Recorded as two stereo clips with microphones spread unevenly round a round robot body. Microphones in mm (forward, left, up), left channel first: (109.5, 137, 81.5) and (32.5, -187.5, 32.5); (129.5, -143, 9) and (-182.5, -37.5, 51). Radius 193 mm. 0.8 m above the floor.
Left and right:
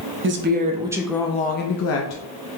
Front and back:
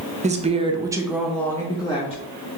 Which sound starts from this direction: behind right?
A woman speaking, at 0.2 s.